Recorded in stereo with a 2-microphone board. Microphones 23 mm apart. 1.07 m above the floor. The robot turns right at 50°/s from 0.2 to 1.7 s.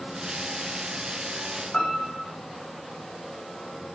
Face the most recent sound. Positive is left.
turn(degrees=55)  # may be behind; listen again after turning